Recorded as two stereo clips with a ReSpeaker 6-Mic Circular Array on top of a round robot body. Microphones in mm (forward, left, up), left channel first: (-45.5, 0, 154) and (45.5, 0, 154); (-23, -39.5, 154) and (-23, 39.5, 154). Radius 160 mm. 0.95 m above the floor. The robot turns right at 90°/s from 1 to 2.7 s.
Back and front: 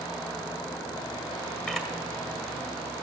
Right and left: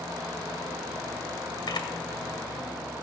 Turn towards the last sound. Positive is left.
turn(degrees=-5)